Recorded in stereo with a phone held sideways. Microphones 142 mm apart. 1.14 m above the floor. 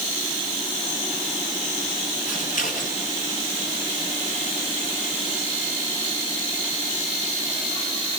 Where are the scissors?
65° left (ahead or behind), 9.5 m.